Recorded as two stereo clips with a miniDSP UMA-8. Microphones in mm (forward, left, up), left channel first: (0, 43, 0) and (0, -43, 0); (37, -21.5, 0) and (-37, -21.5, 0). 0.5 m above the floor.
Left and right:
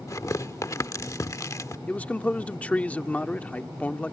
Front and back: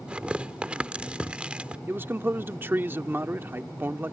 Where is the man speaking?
150° left.